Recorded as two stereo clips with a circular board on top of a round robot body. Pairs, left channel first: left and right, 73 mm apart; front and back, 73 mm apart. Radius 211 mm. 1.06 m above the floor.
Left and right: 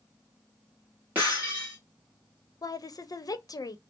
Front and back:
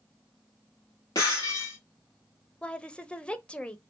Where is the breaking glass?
25° right, 0.7 m.